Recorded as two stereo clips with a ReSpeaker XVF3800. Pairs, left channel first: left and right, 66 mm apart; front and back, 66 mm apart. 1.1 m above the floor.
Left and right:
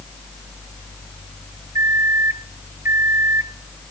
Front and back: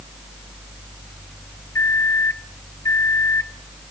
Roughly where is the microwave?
Ahead right.